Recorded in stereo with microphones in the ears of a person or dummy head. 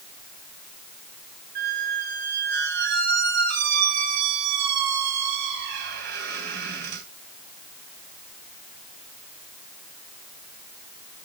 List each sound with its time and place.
1.6 s a squeak: 50° right (ahead or behind), 2.5 m